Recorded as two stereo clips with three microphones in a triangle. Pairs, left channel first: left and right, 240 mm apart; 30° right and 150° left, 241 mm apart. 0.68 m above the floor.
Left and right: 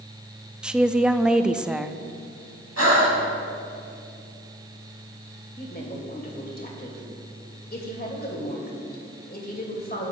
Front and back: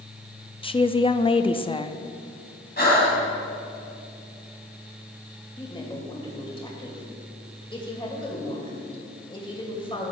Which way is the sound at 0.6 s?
10° right.